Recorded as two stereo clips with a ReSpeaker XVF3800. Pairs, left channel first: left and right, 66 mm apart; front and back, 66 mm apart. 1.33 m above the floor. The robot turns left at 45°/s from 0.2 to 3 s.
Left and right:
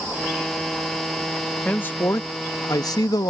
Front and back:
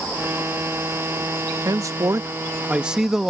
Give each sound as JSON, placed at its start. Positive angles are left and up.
{"t": 1.6, "sound": "a man speaking", "azimuth_deg": 160}